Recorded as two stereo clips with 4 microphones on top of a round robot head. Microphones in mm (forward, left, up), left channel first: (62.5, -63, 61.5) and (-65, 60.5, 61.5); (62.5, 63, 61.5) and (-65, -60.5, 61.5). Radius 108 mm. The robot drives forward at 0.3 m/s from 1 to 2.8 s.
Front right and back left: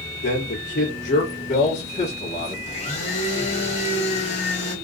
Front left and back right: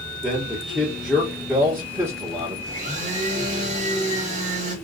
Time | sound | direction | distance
0.2 | a man speaking | 50° right | 1.3 m
2.7 | a blender | 90° right | 1.3 m